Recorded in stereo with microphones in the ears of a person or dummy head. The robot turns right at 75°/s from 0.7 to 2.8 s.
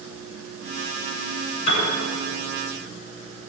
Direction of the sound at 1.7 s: 45° left (ahead or behind).